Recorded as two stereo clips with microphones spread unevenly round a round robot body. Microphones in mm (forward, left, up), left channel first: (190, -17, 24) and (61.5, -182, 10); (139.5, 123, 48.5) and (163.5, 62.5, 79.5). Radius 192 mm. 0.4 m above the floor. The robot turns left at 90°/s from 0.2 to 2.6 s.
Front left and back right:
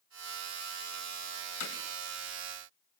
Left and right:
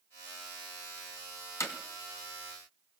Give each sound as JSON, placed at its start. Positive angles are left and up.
{"t": 1.6, "sound": "hammering", "azimuth_deg": 75, "distance_m": 2.5}